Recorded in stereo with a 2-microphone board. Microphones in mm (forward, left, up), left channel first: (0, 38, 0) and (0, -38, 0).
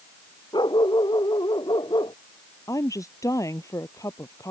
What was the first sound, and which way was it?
A dog barking, 85° left.